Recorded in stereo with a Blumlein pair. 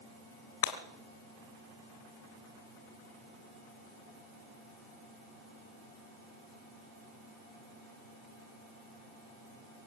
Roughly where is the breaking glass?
Ahead left.